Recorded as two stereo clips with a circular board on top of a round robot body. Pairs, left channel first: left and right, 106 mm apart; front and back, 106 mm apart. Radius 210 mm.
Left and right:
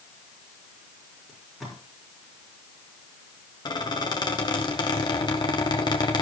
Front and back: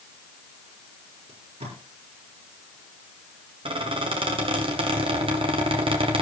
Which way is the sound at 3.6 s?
140° left.